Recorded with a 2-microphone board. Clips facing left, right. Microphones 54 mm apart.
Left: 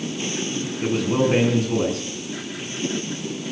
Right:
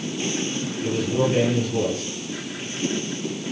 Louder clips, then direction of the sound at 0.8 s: Left 2 dB; 80° left.